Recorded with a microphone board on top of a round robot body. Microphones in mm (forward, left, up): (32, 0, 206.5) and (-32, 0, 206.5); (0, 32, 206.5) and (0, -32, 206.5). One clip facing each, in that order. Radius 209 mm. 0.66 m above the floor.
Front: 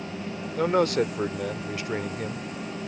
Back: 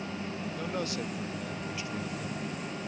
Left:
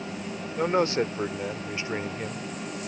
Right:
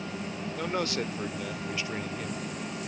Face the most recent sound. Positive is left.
turn(degrees=30)